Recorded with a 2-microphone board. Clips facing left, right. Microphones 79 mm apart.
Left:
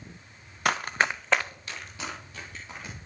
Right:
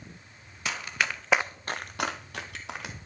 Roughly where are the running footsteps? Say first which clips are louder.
Left 5 dB; left.